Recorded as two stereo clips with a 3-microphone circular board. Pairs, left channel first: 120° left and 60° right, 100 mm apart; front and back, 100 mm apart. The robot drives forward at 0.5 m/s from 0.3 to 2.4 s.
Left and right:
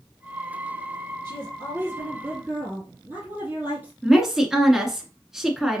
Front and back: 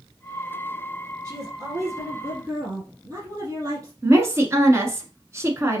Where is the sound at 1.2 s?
120° right, 3 m; by 3.9 s 130° right, 3 m.